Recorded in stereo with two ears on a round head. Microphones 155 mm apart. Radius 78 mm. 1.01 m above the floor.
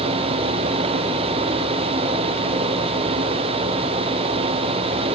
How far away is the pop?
No pop in this recording.